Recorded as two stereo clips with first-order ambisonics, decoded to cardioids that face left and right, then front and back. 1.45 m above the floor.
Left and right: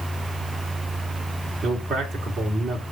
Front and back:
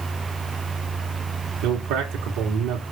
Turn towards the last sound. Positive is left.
turn(degrees=-165)